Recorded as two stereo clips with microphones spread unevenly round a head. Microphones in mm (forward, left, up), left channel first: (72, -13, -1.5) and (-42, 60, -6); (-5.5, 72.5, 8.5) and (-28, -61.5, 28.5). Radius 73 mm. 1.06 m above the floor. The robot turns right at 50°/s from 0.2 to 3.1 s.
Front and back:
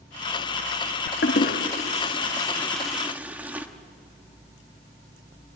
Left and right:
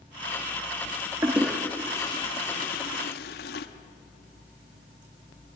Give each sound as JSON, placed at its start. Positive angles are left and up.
{"t": 1.2, "sound": "a toilet flushing", "azimuth_deg": -25, "distance_m": 1.3}